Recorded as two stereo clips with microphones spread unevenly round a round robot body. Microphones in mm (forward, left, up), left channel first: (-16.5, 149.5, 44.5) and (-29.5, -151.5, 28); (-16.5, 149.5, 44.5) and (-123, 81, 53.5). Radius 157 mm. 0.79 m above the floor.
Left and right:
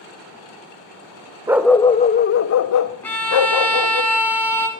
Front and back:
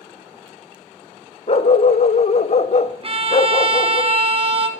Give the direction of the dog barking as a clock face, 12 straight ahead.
12 o'clock.